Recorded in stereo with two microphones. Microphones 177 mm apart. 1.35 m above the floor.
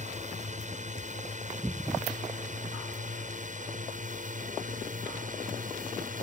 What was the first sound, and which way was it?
A drone, 45° right (ahead or behind).